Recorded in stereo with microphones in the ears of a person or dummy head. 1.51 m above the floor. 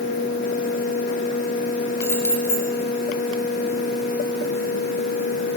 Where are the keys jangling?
5° left (ahead or behind), 2 m.